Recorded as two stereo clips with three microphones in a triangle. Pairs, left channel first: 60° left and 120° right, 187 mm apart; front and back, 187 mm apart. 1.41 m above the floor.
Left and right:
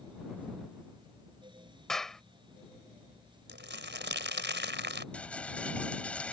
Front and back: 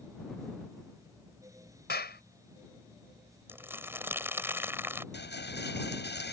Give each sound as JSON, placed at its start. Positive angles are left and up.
{"t": 1.9, "sound": "a clap", "azimuth_deg": -30}
{"t": 3.5, "sound": "crumpling", "azimuth_deg": -100}
{"t": 5.1, "sound": "a rattle", "azimuth_deg": -25}